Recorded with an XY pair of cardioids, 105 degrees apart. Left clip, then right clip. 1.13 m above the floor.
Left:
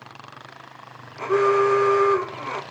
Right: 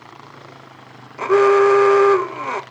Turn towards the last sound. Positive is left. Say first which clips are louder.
# right 6 dB
turn(degrees=-50)